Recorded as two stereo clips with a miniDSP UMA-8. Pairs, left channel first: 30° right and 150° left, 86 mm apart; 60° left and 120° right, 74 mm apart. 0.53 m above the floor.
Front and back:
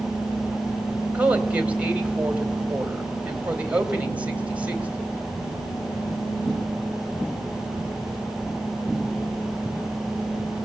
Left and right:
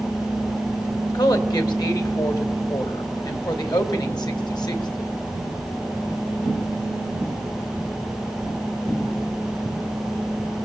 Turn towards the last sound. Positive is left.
turn(degrees=75)